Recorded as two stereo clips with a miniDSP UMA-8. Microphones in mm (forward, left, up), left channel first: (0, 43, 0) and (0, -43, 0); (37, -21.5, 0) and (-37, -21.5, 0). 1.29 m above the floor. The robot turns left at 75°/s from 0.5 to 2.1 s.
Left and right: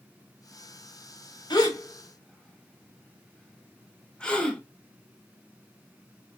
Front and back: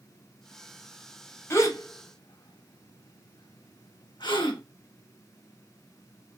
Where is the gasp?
55° left, 0.9 m; by 4.6 s 10° left, 0.9 m.